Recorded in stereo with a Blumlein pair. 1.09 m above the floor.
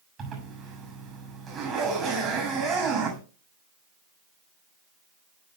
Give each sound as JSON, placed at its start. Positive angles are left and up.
{"t": 0.2, "sound": "a zipper", "azimuth_deg": -20, "distance_m": 7.0}